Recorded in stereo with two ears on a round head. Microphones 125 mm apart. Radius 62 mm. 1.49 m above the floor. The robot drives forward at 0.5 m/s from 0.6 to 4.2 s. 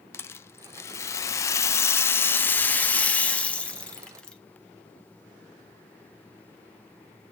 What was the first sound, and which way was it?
A rattle, 20° left (ahead or behind).